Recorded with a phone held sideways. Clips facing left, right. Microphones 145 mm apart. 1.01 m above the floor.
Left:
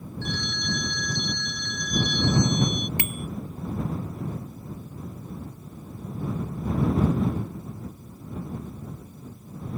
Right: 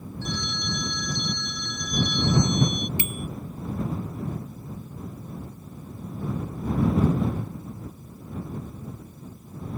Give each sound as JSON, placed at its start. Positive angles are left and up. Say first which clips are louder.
{"t": 0.2, "sound": "a phone ringing", "louder": "even", "side_deg": 60}
{"t": 3.0, "sound": "a bicycle bell", "louder": "even", "side_deg": 70}